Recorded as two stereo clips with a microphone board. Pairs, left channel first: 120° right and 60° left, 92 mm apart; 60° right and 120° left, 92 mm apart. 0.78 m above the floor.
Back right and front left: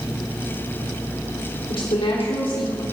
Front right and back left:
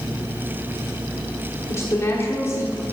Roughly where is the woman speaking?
Behind right.